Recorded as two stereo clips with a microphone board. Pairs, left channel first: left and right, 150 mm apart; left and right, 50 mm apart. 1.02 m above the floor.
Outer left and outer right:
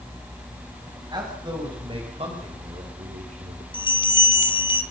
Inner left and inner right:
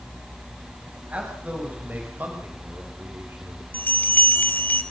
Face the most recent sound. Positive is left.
turn(degrees=35)  # may be behind; listen again after turning